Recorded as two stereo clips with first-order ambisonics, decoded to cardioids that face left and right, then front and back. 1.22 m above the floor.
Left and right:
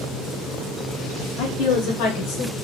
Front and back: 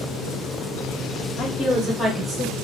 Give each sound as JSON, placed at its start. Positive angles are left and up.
{"t": 1.4, "sound": "a woman speaking", "azimuth_deg": 60, "distance_m": 0.9}